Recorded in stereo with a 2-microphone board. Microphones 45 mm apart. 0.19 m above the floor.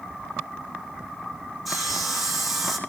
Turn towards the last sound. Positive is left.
turn(degrees=0)  # may be behind; listen again after turning